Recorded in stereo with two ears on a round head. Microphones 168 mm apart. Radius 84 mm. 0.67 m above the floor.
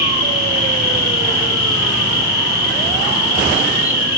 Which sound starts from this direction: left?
An insect, at 0.0 s.